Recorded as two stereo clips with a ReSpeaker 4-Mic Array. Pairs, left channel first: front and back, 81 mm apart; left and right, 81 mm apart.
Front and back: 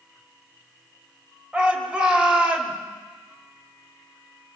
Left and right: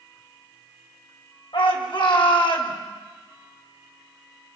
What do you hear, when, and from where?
1.5 s a shout: 100° left, 5 m